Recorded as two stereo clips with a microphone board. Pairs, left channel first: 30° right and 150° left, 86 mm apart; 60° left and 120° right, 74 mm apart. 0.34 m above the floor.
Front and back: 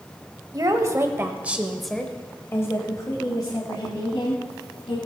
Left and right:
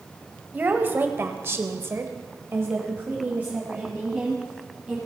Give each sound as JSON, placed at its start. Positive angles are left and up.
{"t": 0.5, "sound": "a woman speaking", "azimuth_deg": 180, "distance_m": 1.3}